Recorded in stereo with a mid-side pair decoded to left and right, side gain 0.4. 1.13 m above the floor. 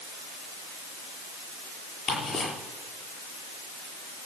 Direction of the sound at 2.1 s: 60° left.